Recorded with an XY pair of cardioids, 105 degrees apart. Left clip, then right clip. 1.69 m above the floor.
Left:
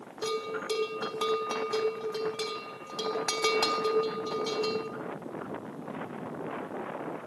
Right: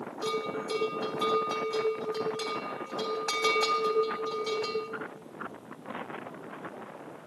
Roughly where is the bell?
Ahead left.